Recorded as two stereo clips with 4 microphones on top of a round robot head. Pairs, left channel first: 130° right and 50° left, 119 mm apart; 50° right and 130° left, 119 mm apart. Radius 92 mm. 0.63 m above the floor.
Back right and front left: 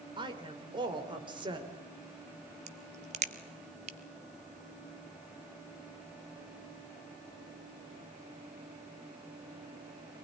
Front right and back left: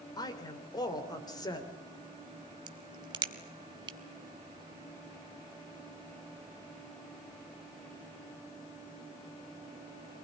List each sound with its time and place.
0.2 s a woman speaking: 5° left, 3 m
2.7 s a crack: 80° left, 0.5 m